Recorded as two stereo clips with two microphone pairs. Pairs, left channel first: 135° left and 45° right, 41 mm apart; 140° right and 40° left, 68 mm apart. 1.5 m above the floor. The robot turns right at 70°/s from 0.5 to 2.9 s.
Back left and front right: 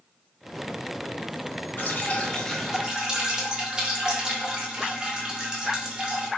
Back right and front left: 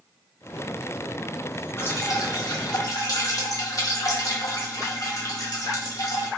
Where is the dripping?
165° left, 0.5 m; by 6.3 s 115° right, 0.5 m.